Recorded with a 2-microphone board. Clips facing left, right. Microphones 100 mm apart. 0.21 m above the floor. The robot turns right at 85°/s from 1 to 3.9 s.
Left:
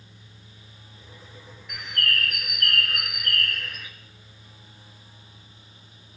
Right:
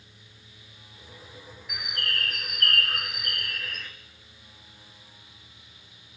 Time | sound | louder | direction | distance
1.7 | a bird | left 5 dB | 170° right | 0.8 m